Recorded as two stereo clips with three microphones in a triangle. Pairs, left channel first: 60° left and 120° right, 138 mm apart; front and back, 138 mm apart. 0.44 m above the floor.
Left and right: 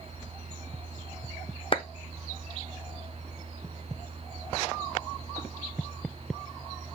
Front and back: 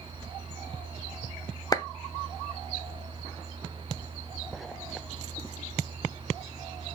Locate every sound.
1.7 s a clap: 45° left, 0.8 m